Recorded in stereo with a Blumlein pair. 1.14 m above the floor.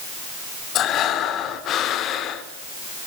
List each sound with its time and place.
0.8 s breathing: 30° left, 2 m